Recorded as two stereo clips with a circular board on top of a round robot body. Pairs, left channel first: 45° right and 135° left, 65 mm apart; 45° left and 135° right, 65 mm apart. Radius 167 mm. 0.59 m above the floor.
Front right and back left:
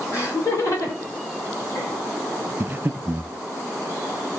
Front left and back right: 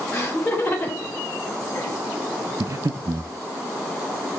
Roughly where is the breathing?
Behind.